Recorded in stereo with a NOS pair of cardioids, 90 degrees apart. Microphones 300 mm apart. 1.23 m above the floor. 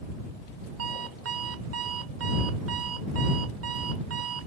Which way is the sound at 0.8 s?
50° right.